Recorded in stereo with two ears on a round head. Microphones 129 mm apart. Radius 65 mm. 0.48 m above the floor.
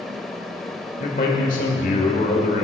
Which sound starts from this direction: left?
A man speaking, at 1.0 s.